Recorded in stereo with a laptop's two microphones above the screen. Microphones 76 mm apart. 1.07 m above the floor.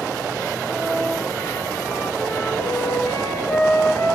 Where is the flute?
55° left (ahead or behind), 4 m.